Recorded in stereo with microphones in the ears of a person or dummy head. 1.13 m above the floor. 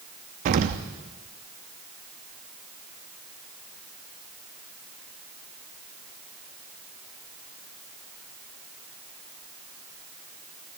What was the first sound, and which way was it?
An explosion, 40° right (ahead or behind).